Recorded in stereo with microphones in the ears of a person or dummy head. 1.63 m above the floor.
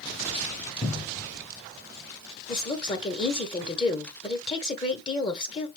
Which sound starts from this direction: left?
A woman speaking, at 2.5 s.